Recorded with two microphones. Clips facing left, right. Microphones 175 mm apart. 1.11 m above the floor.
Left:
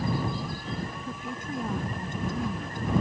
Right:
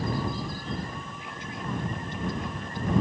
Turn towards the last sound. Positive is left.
turn(degrees=45)  # may be behind; listen again after turning